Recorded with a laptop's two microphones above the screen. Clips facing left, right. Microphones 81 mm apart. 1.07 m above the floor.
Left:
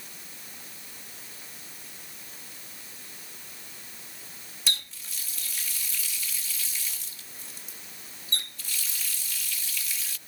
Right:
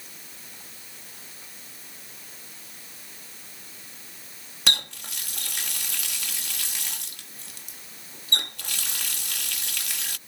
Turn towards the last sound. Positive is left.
turn(degrees=-65)  # may be behind; listen again after turning